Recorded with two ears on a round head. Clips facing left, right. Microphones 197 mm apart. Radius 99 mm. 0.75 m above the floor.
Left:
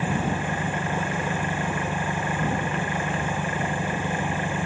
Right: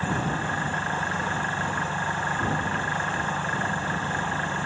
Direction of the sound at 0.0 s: 15° left (ahead or behind).